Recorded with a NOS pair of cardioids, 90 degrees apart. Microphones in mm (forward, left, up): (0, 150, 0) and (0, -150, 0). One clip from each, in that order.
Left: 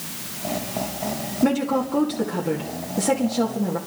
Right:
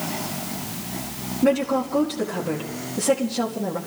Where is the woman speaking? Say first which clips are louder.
Right 2 dB; 15° left, 2 m.